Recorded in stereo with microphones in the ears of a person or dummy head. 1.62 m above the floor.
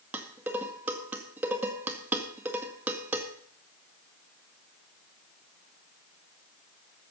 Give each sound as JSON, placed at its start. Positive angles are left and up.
{"t": 0.1, "sound": "dishes clattering", "side_deg": -10, "distance_m": 1.9}